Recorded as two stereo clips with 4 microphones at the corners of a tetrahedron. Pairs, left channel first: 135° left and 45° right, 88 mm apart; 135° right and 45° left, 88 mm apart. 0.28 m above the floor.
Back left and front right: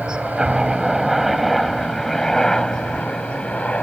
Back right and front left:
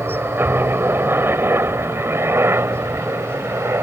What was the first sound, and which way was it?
A helicopter, 20° left.